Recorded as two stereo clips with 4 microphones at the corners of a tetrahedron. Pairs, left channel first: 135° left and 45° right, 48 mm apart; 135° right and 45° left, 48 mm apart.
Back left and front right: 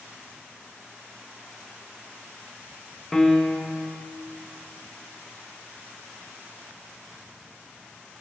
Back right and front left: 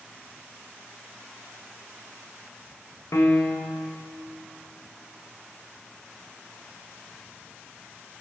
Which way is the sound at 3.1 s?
140° right.